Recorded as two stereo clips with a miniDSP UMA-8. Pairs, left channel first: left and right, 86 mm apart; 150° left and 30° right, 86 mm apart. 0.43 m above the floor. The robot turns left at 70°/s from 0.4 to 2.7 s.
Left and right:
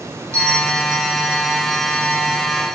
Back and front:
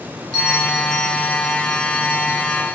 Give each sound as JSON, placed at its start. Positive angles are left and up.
{"t": 0.3, "sound": "a bell", "azimuth_deg": -35, "distance_m": 1.3}